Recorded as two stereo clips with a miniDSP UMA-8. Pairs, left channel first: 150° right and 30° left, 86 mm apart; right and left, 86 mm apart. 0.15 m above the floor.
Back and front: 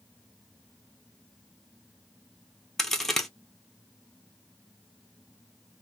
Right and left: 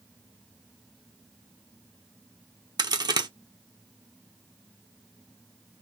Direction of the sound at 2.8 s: 125° left.